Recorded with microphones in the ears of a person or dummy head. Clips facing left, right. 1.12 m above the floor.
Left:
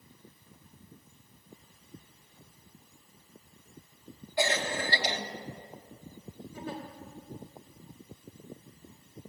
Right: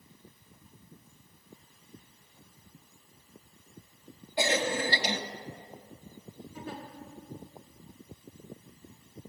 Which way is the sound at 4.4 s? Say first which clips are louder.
Right 2 dB; 15° right (ahead or behind).